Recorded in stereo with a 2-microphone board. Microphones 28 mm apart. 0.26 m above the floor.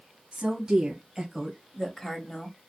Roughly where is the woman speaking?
Right.